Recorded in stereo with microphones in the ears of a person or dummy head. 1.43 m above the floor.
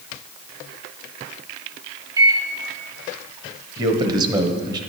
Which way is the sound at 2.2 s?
20° right (ahead or behind).